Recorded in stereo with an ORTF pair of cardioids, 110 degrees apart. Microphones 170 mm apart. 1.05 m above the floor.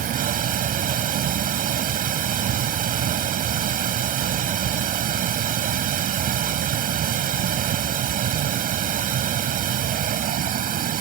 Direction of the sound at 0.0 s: 55° right.